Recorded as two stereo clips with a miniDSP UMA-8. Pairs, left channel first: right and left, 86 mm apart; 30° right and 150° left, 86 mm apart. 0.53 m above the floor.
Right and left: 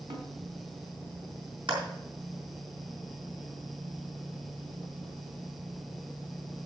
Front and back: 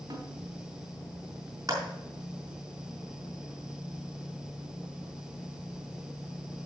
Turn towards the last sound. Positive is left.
turn(degrees=100)